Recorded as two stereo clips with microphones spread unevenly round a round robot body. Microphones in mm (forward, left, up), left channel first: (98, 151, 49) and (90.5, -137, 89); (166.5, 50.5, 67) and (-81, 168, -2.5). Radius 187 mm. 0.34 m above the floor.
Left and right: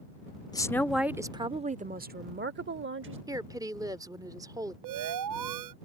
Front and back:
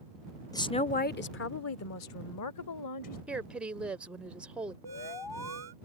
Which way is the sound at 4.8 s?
115° right.